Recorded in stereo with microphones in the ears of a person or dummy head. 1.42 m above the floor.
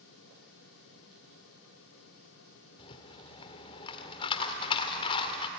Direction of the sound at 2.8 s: 30° left (ahead or behind).